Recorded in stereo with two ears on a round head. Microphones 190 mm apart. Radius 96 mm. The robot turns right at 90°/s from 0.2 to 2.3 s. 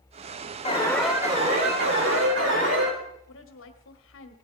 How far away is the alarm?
About 5 m.